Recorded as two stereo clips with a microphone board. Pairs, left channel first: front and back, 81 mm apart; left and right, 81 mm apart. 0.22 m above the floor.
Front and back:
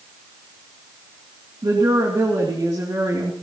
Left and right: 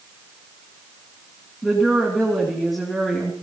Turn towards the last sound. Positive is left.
turn(degrees=180)